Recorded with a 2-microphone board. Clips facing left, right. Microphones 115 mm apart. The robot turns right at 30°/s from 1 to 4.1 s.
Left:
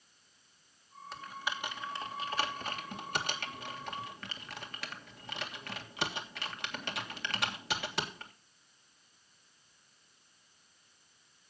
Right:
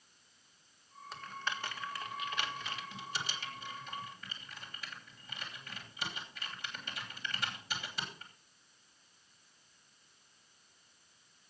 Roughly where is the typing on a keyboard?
Centre.